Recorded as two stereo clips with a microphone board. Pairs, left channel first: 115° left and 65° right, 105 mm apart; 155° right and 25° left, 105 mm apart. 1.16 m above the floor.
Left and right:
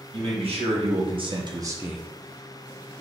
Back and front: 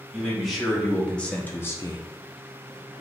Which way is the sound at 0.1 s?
65° right.